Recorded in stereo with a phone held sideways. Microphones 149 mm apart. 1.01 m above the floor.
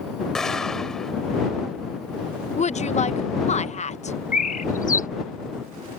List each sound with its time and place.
0.3 s an explosion: 5° left (ahead or behind)
2.6 s a woman speaking: 50° left (ahead or behind)
4.3 s a bird: 60° left (ahead or behind)